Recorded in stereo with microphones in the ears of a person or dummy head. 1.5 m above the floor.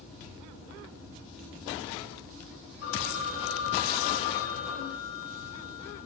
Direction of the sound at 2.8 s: 70° left (ahead or behind).